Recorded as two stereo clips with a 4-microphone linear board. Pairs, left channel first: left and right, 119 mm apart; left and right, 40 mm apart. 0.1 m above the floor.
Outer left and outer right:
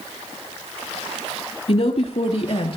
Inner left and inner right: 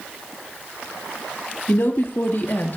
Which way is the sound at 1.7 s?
60° left (ahead or behind).